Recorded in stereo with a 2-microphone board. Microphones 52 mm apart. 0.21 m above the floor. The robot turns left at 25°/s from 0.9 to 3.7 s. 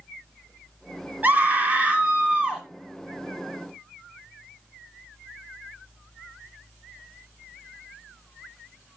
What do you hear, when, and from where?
1.2 s a scream: 120° right, 1.9 m; by 2.6 s 155° right, 1.9 m